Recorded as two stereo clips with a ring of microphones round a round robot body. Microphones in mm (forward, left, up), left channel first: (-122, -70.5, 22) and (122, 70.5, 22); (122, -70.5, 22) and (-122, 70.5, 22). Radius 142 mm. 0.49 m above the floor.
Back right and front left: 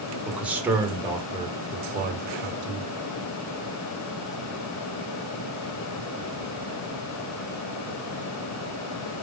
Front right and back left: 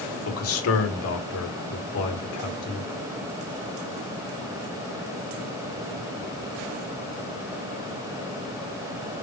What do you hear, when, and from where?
0.2 s a man speaking: 60° right, 1.9 m; by 2.9 s straight ahead, 1.8 m